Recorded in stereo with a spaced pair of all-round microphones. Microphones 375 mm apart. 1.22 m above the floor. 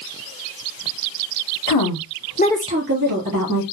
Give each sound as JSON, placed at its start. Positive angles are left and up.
{"t": 1.7, "sound": "a woman speaking", "side_deg": 70, "distance_m": 1.1}